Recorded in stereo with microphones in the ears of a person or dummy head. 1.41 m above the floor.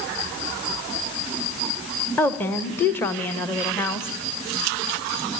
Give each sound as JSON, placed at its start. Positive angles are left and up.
{"t": 2.2, "sound": "a woman speaking", "side_deg": 10, "distance_m": 1.4}